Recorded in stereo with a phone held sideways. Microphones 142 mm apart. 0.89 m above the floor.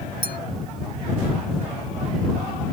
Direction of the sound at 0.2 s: 70° right (ahead or behind).